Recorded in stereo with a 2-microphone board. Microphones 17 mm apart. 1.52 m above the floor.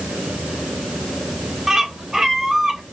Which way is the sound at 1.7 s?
20° right (ahead or behind).